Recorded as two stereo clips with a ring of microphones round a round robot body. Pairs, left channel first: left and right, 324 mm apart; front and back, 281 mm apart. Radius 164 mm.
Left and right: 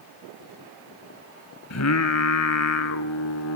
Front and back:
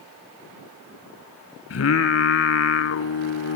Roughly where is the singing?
Ahead left.